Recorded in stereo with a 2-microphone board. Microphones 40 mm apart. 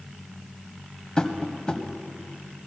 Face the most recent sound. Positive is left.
turn(degrees=20)  # may be behind; listen again after turning